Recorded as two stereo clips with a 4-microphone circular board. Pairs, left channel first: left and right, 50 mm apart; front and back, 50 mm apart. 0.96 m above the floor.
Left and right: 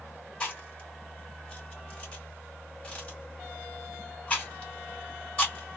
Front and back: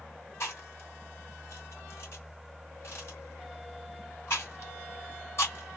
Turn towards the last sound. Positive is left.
turn(degrees=25)